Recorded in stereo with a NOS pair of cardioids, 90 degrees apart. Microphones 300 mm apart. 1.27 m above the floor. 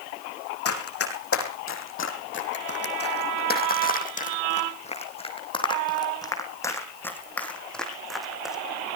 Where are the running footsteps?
50° left, 4.5 m; by 8.6 s straight ahead, 5 m.